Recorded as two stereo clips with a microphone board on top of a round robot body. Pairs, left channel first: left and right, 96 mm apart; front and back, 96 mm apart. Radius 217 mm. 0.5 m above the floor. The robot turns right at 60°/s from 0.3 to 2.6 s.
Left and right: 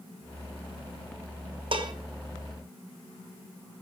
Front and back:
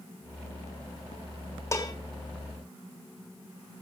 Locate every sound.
1.7 s dishes clattering: 60° right, 2.5 m; by 1.9 s 45° right, 2.5 m